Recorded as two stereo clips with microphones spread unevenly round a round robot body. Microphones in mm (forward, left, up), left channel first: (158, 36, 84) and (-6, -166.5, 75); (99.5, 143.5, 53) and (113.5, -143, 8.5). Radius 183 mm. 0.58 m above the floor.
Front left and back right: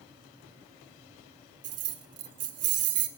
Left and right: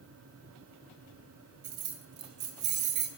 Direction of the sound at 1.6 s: 130° right.